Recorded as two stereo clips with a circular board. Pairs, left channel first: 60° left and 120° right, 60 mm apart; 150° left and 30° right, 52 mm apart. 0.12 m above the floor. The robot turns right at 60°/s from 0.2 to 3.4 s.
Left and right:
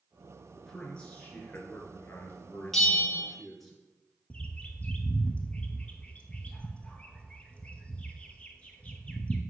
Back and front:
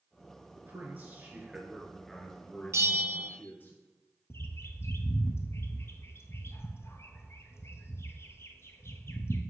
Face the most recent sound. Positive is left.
turn(degrees=125)